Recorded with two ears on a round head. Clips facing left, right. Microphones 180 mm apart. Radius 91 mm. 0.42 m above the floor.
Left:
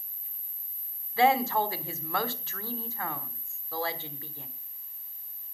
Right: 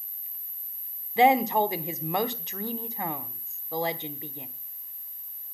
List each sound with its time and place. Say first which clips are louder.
1.2 s a woman speaking: right 3 dB; 20° right (ahead or behind), 1.0 m